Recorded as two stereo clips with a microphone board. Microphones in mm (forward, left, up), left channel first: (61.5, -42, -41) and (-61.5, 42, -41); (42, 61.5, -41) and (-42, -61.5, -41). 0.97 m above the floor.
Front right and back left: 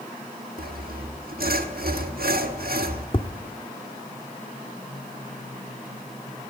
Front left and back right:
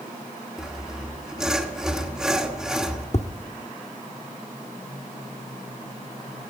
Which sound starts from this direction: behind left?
Sawing, at 0.6 s.